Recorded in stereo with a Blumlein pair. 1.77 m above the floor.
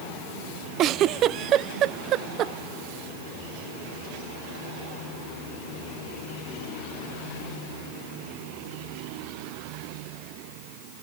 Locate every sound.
0.8 s a giggle: 35° right, 0.5 m